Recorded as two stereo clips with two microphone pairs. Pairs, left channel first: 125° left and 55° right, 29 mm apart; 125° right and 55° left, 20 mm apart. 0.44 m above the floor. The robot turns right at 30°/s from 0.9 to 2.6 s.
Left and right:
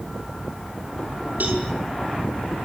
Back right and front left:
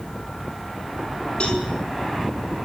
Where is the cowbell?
85° right, 6.5 m; by 1.7 s 75° right, 6.5 m.